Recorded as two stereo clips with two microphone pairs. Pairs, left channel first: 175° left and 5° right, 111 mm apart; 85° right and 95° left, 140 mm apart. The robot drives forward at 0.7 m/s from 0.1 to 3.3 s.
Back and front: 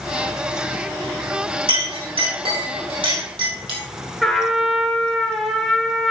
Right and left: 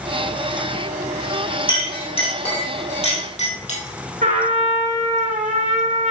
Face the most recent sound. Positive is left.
turn(degrees=90)